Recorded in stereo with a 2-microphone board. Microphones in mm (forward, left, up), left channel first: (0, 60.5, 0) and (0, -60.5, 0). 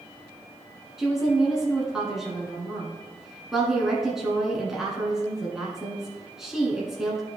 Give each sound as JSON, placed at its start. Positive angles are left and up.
{"t": 1.0, "sound": "a woman speaking", "side_deg": -5, "distance_m": 1.4}